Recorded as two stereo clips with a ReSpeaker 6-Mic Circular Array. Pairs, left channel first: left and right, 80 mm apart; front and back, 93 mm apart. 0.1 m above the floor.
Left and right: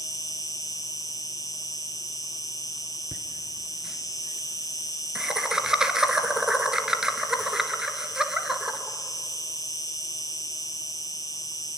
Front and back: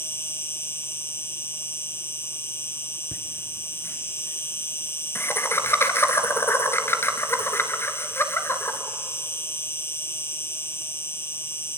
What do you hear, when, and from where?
0.0 s an insect: 60° left, 1.9 m
3.1 s laughter: 15° right, 1.9 m